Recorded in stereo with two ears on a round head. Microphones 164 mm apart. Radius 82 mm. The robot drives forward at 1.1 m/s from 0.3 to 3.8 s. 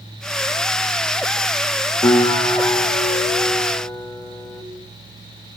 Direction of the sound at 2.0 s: 15° left (ahead or behind).